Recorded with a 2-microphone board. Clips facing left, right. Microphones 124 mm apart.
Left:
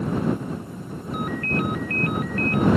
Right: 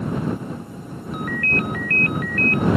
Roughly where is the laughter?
I don't hear laughter.